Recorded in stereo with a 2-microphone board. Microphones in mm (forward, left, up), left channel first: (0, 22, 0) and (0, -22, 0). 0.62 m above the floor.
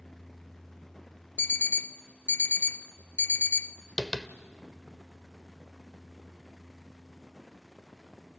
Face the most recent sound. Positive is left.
turn(degrees=5)  # may be behind; listen again after turning